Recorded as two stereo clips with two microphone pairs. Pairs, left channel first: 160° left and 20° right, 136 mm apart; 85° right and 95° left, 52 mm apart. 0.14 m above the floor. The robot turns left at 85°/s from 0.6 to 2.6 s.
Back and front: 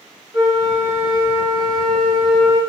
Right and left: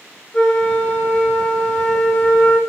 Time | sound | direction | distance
0.3 | a flute | 20° right | 1.6 m